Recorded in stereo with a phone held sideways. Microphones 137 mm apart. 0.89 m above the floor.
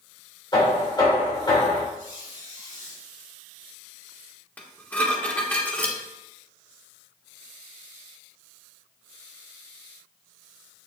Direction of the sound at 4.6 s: 10° left (ahead or behind).